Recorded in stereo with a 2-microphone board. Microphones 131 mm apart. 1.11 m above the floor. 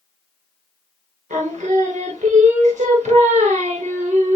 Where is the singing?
70° right (ahead or behind), 1.1 m.